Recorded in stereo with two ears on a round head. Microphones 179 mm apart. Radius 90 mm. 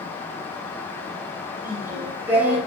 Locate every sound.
1.6 s singing: 10° right (ahead or behind), 3 m